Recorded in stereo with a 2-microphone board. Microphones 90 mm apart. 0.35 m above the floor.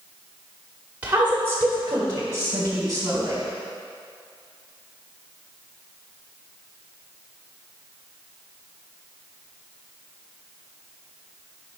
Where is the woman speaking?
15° right (ahead or behind), 1.3 m; by 3.4 s 30° right (ahead or behind), 4 m.